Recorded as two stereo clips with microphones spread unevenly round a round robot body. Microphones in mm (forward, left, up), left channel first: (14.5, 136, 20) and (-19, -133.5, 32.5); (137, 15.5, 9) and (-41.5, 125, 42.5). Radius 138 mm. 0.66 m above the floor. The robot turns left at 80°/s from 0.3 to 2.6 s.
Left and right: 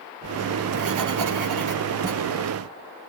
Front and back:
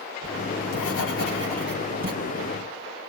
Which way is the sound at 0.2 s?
10° right.